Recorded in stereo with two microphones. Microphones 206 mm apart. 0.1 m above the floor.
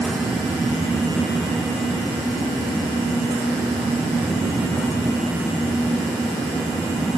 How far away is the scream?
I don't hear a scream.